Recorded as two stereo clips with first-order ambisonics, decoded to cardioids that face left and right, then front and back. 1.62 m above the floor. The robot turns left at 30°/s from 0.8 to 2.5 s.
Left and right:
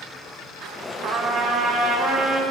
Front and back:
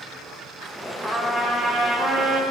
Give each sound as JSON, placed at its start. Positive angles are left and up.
{"t": 1.0, "sound": "a trumpet", "azimuth_deg": -95, "distance_m": 0.9}